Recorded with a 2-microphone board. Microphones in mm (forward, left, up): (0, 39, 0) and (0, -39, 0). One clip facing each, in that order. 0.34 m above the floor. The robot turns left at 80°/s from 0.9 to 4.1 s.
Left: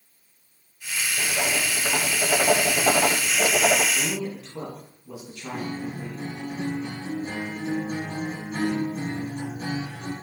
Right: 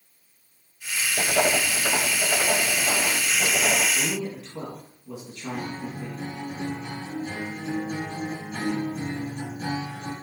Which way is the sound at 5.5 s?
35° left (ahead or behind).